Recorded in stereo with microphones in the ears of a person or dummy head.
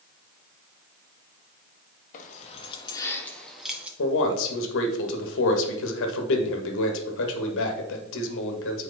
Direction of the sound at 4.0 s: 75° left (ahead or behind).